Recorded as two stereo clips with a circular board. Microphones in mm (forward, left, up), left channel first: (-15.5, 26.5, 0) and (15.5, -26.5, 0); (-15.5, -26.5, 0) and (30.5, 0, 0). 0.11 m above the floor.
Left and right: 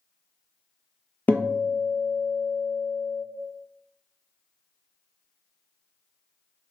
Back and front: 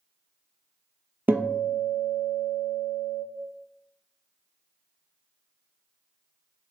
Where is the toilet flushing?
I don't hear a toilet flushing.